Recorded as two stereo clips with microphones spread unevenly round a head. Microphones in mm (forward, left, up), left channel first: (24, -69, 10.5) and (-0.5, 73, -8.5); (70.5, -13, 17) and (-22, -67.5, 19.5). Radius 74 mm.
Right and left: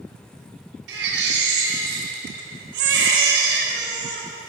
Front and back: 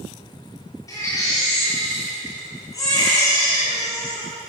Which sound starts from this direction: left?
A baby crying, at 0.9 s.